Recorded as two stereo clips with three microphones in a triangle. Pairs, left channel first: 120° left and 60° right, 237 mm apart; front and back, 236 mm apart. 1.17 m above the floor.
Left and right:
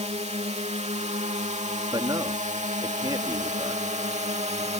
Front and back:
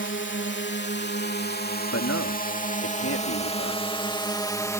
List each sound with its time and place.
0.0 s a drone: 5° right; by 4.8 s 65° right
1.9 s a man speaking: 15° left